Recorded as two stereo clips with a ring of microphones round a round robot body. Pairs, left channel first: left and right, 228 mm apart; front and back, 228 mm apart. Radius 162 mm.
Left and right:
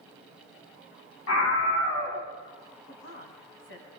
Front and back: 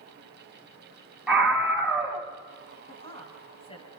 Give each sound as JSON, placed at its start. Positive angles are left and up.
{"t": 1.3, "sound": "a scream", "azimuth_deg": 95, "distance_m": 4.5}
{"t": 2.9, "sound": "a woman speaking", "azimuth_deg": 65, "distance_m": 5.5}